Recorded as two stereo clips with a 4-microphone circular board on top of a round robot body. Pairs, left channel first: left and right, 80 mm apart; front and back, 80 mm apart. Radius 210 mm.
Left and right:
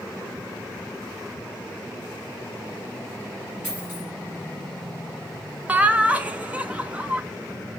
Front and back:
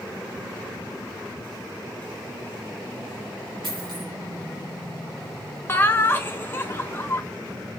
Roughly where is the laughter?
Ahead right.